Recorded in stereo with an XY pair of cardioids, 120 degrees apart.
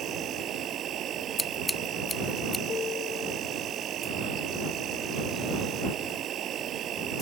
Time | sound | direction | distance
0.0 | an insect | 55° right | ?
1.4 | scissors | 15° left | ?
2.7 | a piano | 50° left | ?